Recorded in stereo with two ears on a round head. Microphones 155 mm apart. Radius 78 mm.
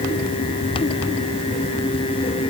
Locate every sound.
Only background noise.